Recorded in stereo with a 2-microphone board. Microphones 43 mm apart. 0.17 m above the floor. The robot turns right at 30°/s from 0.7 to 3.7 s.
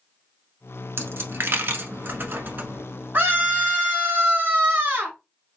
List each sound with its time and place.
1.0 s a dropped coin: 50° right (ahead or behind), 0.8 m; by 2.8 s 35° right (ahead or behind), 0.8 m
3.1 s a scream: 35° right (ahead or behind), 1.3 m; by 5.2 s 30° right (ahead or behind), 1.3 m